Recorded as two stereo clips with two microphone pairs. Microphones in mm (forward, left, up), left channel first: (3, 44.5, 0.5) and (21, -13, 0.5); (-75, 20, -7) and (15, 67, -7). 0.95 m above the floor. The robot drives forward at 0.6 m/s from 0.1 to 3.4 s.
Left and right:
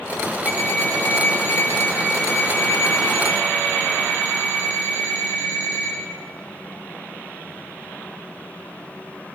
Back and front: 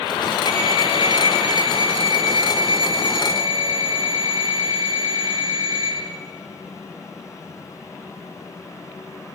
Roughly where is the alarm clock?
Ahead left.